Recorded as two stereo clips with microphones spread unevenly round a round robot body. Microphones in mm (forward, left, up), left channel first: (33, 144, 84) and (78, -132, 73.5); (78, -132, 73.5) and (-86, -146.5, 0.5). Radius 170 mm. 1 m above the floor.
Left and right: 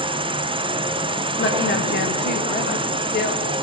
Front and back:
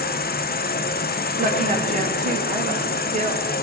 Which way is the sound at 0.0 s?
25° right.